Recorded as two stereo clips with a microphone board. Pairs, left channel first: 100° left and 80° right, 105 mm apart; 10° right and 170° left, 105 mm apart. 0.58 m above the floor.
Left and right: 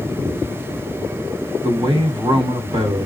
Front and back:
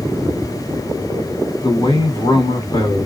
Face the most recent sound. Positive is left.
turn(degrees=-55)